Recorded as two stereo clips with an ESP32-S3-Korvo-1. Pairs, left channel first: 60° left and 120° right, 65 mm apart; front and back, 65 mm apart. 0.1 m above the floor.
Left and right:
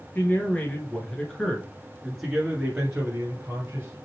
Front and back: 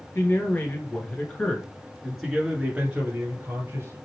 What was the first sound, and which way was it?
A man speaking, 20° left.